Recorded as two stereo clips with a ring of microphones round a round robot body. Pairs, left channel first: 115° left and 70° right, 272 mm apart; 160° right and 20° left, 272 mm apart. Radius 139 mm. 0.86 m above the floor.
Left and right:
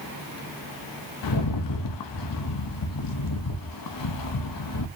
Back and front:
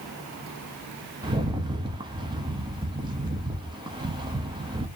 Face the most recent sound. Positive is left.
turn(degrees=95)